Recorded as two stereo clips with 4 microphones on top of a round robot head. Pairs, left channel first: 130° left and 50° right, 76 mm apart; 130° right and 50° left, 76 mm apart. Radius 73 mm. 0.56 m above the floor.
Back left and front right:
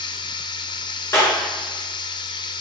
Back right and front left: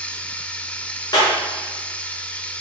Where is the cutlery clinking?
I don't hear cutlery clinking.